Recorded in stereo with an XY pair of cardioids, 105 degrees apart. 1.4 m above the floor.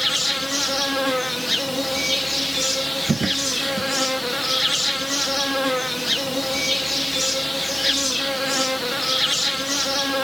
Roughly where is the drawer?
Ahead right.